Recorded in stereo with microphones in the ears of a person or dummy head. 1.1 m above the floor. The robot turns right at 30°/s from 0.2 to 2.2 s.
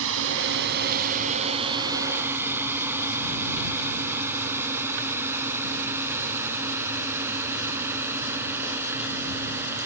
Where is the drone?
65° right (ahead or behind); by 9.9 s 10° right (ahead or behind).